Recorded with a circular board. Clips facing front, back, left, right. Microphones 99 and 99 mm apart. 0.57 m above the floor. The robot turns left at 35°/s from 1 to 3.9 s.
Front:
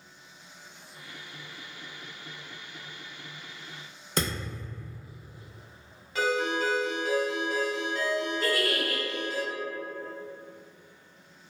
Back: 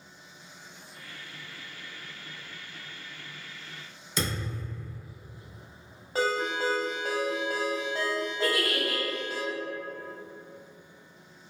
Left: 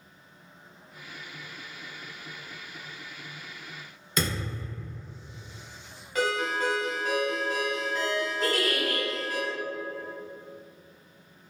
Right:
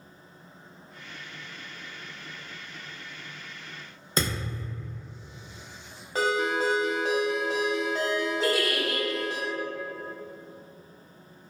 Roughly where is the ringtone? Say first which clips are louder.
Front 1 dB, right 2 dB; behind right.